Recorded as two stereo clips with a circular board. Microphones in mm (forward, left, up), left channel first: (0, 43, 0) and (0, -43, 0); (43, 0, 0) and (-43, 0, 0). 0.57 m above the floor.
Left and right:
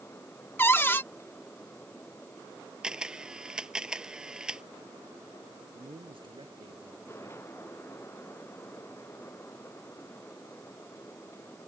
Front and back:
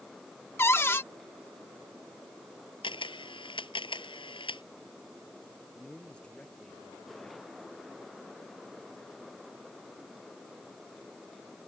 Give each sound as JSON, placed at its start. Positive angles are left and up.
{"t": 0.6, "sound": "a cupboard door", "azimuth_deg": 40}
{"t": 2.8, "sound": "a camera shutter", "azimuth_deg": -10}
{"t": 5.7, "sound": "a man speaking", "azimuth_deg": -80}